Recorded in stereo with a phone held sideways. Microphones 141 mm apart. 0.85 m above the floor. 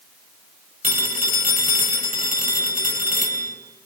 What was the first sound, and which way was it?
A phone ringing, 85° right.